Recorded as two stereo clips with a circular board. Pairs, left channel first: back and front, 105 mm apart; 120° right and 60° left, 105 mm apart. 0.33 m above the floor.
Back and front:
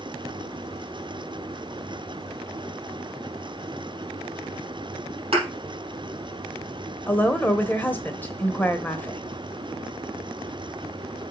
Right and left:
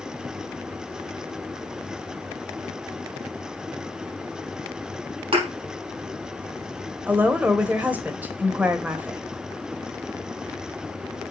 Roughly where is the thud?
Ahead left.